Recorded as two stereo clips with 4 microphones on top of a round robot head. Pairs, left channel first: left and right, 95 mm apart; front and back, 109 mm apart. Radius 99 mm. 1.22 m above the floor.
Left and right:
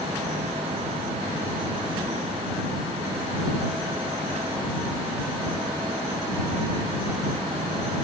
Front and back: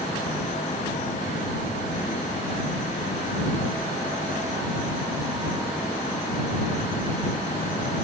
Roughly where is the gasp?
No gasp in this recording.